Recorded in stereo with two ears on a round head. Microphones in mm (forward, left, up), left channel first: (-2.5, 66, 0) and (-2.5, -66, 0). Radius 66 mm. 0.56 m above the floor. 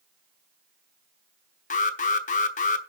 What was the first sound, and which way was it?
An alarm, 55° left (ahead or behind).